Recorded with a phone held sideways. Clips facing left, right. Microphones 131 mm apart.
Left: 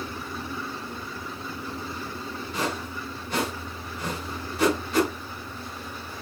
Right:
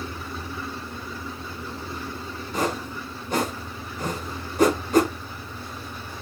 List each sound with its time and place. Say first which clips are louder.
2.5 s a whoosh: right 4 dB; 45° right (ahead or behind), 1.1 m